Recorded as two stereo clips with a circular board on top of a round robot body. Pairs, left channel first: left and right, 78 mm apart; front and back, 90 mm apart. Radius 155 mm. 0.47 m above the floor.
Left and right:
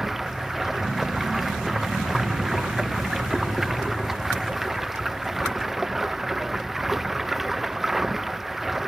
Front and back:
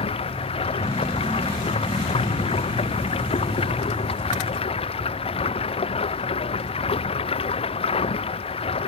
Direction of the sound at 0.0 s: 5° right.